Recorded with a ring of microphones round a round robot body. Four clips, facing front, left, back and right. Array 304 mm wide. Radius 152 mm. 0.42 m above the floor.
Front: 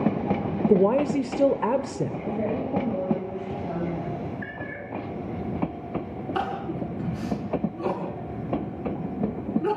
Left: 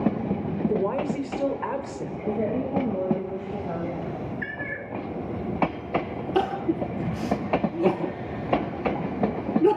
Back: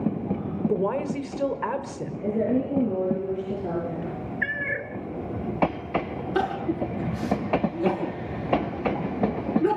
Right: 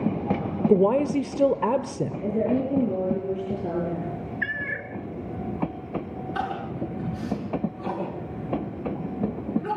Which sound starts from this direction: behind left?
Crying, at 6.3 s.